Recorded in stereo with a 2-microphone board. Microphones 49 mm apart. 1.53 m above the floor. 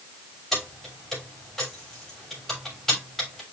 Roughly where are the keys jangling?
Centre.